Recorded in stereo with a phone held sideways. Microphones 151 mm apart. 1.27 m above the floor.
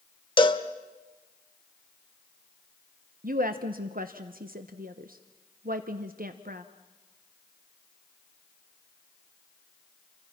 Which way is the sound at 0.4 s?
35° left (ahead or behind).